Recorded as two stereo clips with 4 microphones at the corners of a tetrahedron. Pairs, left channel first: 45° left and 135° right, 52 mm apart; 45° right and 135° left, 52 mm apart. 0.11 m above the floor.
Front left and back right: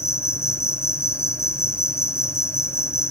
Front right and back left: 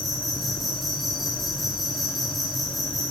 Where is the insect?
45° left, 1.8 m.